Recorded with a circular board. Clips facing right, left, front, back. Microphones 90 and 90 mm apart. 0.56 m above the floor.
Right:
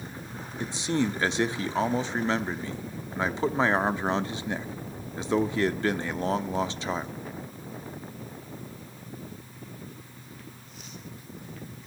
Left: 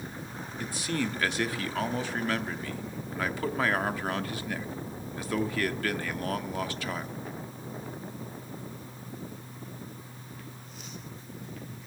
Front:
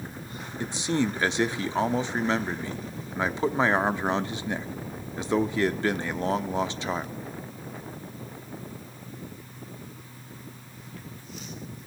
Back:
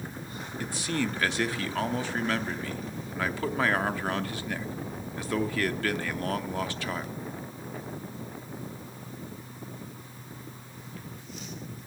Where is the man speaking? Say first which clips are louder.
Right 5 dB, front 4 dB; 45° right, 0.7 m.